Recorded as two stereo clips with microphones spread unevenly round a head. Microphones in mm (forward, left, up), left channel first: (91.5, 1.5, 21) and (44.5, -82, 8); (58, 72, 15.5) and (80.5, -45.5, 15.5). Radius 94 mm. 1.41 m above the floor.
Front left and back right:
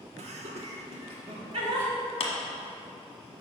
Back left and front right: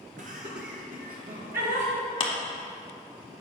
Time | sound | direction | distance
0.2 | laughter | 135° right | 0.9 m
2.2 | a clap | 60° left | 1.2 m